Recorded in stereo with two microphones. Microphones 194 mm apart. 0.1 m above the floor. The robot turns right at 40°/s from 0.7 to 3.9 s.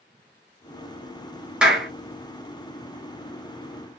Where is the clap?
5° right (ahead or behind), 1.3 m; by 1.9 s centre (ahead or behind), 1.3 m.